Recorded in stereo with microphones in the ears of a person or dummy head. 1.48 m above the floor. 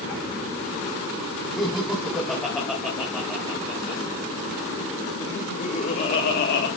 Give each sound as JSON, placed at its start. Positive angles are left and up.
{"t": 1.6, "sound": "laughter", "side_deg": 5, "distance_m": 4.0}